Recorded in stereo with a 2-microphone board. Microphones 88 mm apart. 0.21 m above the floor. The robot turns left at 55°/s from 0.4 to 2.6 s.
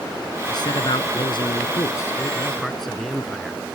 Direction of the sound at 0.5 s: 120° left.